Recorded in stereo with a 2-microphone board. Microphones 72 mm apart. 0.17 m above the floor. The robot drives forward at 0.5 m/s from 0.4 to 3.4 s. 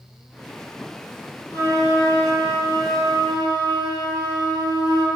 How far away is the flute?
About 4.5 m.